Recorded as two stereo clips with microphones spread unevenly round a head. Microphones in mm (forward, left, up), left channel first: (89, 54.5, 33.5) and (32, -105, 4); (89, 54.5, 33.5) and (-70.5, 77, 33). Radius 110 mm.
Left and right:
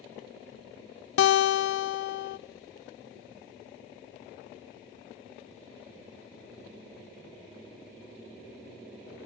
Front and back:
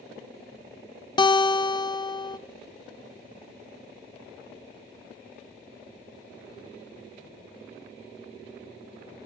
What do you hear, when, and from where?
1.2 s a guitar: 55° left, 0.7 m